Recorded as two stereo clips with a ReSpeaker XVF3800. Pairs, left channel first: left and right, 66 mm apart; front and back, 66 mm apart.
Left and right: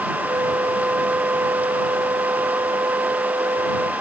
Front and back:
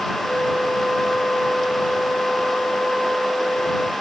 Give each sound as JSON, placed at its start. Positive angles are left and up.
{"t": 0.2, "sound": "a flute", "azimuth_deg": -70}